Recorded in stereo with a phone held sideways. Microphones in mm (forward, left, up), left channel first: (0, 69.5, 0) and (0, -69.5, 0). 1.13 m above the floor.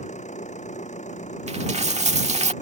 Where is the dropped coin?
55° right (ahead or behind).